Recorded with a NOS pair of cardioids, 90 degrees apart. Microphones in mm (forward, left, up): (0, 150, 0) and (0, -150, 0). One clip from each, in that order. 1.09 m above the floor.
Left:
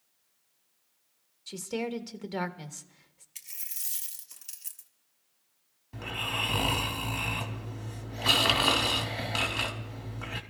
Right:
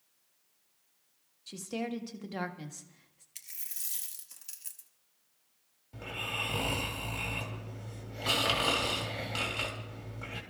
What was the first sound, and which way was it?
A woman speaking, 20° left.